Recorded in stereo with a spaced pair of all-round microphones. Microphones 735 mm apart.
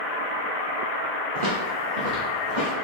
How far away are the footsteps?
About 1.5 m.